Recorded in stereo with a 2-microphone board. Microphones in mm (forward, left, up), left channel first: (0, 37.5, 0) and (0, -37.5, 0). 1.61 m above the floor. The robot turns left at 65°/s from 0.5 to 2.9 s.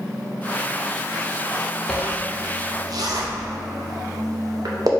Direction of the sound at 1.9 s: 10° left (ahead or behind).